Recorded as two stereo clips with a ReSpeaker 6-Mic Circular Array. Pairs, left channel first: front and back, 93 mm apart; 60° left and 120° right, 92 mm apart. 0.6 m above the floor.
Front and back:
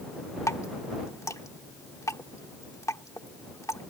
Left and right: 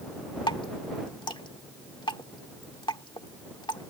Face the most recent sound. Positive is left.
turn(degrees=45)